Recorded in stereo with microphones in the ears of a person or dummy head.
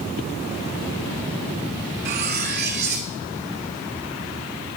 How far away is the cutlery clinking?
About 0.8 m.